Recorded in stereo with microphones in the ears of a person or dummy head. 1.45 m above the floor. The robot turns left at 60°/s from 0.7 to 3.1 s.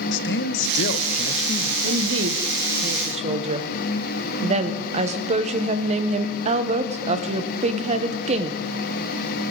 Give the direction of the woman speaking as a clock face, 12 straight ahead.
2 o'clock.